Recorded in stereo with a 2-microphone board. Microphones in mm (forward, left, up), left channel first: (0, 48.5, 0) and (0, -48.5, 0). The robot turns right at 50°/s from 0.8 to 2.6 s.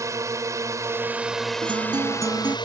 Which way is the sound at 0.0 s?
35° right.